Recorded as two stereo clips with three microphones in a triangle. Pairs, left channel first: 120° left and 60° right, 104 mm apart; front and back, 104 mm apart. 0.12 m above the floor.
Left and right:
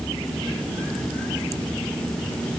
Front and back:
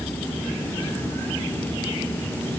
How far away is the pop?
I don't hear a pop.